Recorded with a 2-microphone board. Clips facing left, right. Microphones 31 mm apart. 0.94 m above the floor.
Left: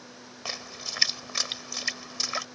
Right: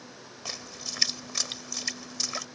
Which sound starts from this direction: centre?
A splash, at 0.5 s.